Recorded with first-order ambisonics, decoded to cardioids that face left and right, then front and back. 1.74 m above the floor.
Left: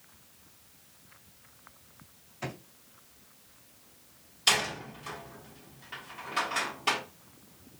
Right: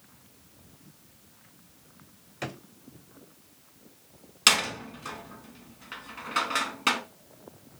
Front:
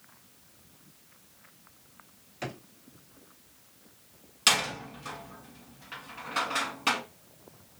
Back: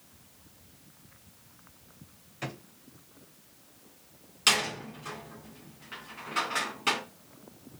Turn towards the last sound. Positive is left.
turn(degrees=-80)